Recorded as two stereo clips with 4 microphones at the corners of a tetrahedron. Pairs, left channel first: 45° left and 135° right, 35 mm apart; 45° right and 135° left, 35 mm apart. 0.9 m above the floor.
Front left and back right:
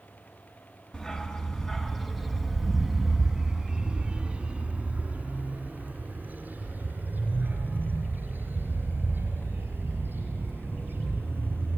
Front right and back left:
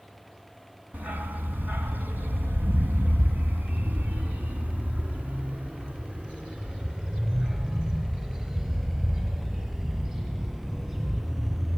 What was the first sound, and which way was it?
A dog barking, 110° left.